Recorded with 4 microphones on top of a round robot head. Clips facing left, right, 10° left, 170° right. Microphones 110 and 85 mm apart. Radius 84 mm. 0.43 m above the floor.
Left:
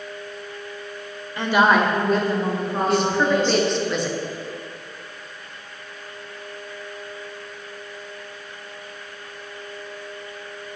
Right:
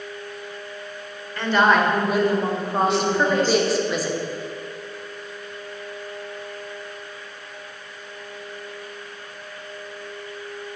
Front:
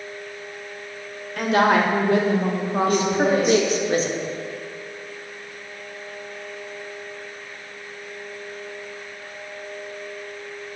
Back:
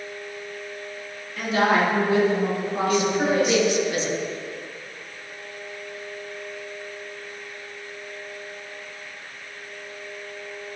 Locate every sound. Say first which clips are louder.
1.4 s a woman speaking: left 1 dB, front 3 dB; 20° left, 1.7 m; by 3.9 s 50° right, 3 m
2.9 s a woman speaking: left 3 dB, front 1 dB; 5° right, 1.3 m